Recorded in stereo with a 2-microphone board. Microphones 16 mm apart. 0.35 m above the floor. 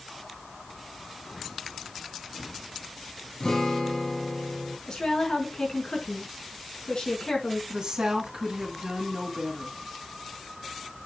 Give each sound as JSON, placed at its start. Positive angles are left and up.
{"t": 3.4, "sound": "a guitar", "side_deg": 45, "distance_m": 2.0}
{"t": 4.9, "sound": "a woman speaking", "side_deg": 65, "distance_m": 4.0}
{"t": 7.7, "sound": "a woman speaking", "side_deg": -60, "distance_m": 2.5}